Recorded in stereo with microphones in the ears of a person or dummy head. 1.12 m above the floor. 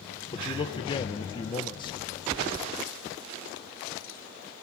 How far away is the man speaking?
About 0.6 m.